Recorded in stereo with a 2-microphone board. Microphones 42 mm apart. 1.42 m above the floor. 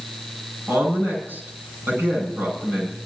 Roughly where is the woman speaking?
Right.